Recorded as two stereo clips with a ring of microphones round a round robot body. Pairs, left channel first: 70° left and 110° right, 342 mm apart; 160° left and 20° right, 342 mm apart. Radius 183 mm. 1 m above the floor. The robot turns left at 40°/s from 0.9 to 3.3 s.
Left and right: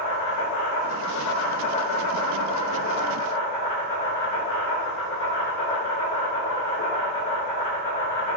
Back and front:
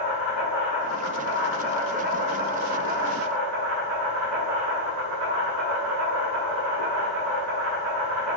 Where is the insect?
110° left, 1.7 m; by 8.4 s 10° left, 1.7 m.